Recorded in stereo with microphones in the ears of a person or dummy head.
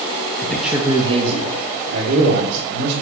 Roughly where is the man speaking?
Centre.